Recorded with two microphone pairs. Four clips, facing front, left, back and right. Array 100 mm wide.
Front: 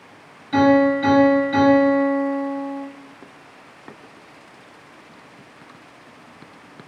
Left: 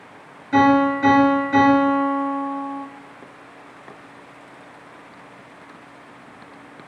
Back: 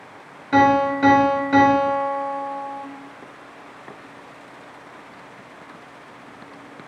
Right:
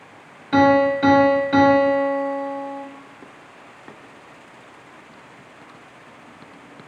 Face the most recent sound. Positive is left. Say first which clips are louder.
# even, front 1 dB
turn(degrees=-150)